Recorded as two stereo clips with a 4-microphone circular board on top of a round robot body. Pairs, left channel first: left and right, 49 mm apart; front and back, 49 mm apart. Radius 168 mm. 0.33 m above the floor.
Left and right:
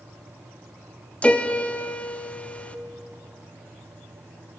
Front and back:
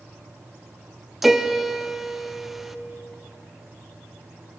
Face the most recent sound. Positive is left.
turn(degrees=100)